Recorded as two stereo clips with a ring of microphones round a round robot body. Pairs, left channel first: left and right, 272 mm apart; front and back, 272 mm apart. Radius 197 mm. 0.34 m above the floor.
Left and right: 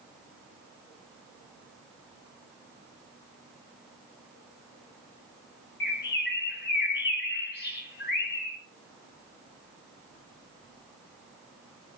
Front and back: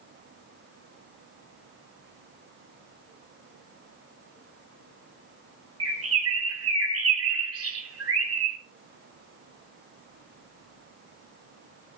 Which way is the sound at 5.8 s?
150° left.